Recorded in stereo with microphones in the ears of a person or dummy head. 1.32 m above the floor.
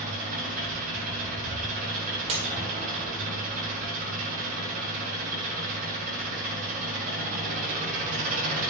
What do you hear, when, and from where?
0.0 s an engine running: 50° right (ahead or behind), 4.5 m
2.3 s breaking glass: 35° right (ahead or behind), 1.6 m